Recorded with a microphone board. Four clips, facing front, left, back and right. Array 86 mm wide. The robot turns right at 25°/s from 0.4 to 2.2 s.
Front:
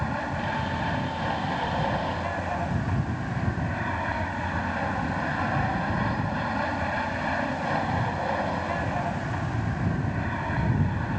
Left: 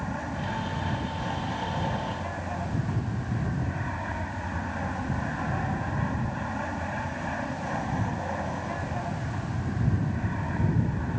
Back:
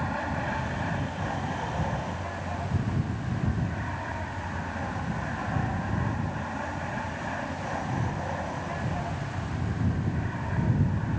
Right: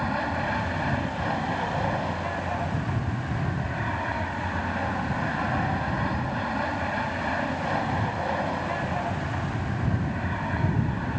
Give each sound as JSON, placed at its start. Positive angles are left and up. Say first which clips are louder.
{"t": 0.0, "sound": "an aircraft", "louder": "right 6 dB, front 1 dB", "azimuth_deg": -85}